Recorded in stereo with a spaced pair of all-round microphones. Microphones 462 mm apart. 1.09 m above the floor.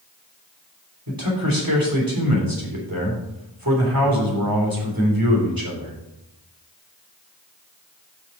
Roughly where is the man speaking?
Right.